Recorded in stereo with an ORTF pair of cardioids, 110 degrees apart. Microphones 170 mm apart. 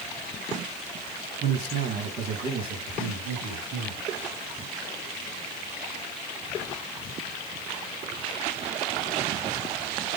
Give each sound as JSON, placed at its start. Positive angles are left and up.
{"t": 1.4, "sound": "a man speaking", "azimuth_deg": -60, "distance_m": 1.0}